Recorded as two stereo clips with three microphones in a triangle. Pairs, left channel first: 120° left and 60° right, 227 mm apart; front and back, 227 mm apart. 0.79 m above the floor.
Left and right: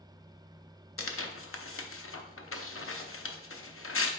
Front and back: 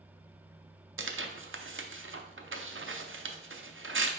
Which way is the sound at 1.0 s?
145° left.